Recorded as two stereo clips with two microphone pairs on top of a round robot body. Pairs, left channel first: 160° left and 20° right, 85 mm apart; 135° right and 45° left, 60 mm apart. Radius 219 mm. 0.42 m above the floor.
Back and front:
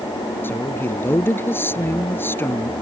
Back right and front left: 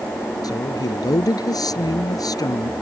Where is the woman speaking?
135° right.